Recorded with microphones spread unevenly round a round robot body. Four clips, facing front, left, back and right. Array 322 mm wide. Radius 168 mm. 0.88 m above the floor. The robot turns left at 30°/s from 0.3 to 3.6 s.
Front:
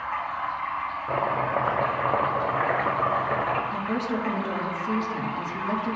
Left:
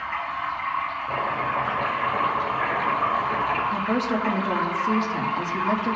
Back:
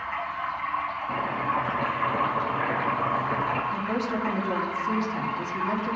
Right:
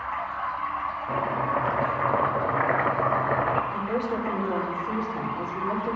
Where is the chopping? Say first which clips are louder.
Right 1 dB, front 4 dB; 15° left, 0.8 m; by 3.6 s 65° right, 0.8 m.